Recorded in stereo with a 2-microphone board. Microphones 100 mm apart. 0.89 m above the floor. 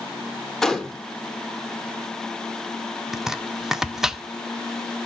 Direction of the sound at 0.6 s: 5° left (ahead or behind).